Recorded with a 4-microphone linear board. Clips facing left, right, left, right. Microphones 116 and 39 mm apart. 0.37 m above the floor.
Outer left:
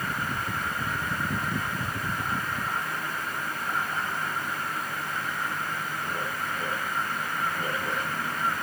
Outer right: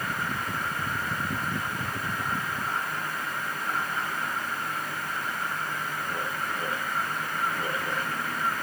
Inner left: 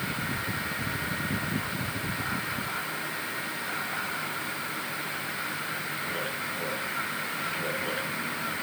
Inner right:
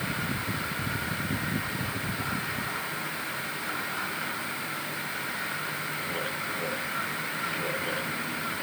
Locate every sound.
Only background noise.